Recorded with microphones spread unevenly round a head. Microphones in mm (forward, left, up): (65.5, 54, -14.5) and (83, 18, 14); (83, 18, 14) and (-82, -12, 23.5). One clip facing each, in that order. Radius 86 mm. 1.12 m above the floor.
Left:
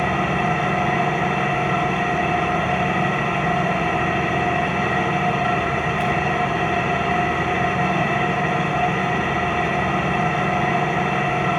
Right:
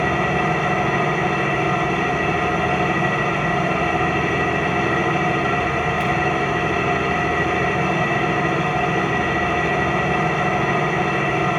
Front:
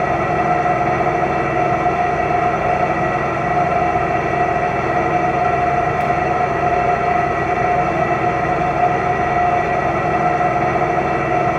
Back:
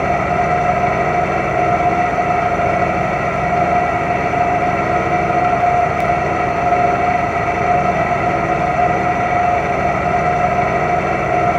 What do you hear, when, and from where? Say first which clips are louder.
0.0 s an engine running: right 1 dB, back 1 dB; 150° right, 1.7 m